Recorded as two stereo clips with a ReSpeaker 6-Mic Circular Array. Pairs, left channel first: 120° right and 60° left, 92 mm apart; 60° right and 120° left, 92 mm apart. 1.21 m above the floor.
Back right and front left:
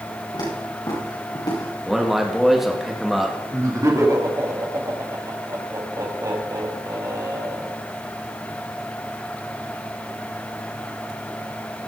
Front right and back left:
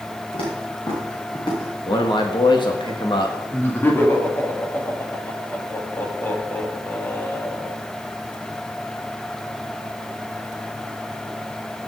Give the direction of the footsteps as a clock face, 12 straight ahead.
3 o'clock.